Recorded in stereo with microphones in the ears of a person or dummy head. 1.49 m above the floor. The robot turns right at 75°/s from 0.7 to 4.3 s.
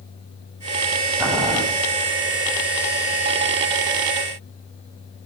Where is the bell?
I don't hear a bell.